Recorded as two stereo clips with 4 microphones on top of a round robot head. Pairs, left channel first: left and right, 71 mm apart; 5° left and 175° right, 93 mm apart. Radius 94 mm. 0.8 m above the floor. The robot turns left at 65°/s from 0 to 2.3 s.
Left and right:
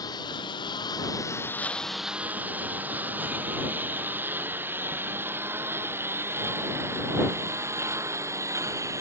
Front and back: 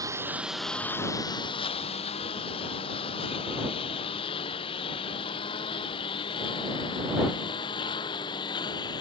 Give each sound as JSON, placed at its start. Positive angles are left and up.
{"t": 0.0, "sound": "a lawn mower", "azimuth_deg": 130}